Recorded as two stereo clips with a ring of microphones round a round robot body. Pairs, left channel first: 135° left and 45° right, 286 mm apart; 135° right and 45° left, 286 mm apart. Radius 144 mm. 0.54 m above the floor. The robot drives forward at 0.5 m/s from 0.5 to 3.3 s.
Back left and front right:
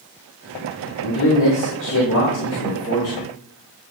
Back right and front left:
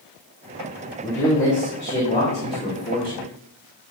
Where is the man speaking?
140° left, 2.5 m; by 3.3 s 155° left, 3.5 m.